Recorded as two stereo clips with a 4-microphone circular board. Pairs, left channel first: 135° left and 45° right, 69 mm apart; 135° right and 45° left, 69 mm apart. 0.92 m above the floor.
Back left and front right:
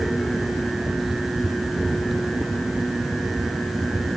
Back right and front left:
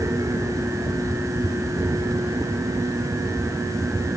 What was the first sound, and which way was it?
Only background noise.